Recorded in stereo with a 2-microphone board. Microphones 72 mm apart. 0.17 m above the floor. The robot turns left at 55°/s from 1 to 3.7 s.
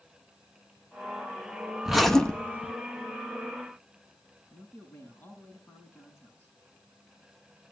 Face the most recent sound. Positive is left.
turn(degrees=30)  # may be behind; listen again after turning